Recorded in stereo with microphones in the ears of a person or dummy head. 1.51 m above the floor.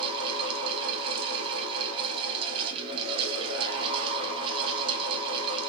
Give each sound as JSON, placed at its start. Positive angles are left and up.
{"t": 0.0, "sound": "a fan", "side_deg": -30, "distance_m": 1.1}